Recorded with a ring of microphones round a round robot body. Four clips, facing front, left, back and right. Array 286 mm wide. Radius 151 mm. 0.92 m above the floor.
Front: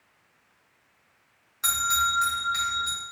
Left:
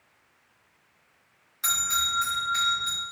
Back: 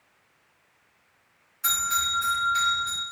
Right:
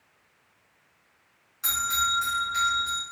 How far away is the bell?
About 1.6 m.